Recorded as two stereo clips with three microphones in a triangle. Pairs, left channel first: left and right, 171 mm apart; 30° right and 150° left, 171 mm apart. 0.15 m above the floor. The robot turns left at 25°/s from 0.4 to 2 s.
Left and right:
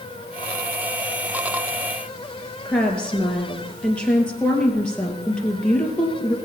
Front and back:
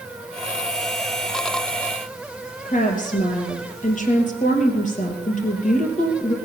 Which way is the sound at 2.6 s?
5° left.